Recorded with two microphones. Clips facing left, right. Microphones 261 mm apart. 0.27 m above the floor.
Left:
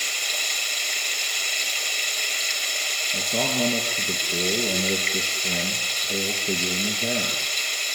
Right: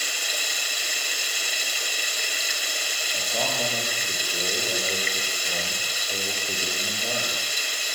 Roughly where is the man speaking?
Left.